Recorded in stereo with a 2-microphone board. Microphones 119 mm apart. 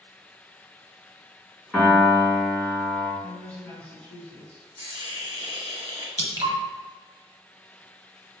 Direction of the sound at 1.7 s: 5° left (ahead or behind).